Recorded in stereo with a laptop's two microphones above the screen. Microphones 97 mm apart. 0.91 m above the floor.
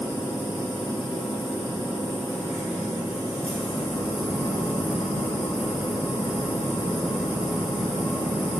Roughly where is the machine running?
Left.